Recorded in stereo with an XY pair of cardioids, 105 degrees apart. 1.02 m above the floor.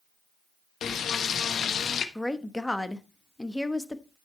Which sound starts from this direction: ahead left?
Frying, at 0.8 s.